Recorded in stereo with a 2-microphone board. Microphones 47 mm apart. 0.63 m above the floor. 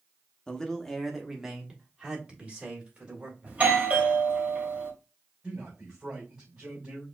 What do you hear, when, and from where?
0.5 s a man speaking: 15° left (ahead or behind), 0.9 m; by 3.6 s 30° right (ahead or behind), 2.5 m
3.5 s a doorbell: 30° right (ahead or behind), 1.4 m
5.4 s a man speaking: 25° right (ahead or behind), 2.5 m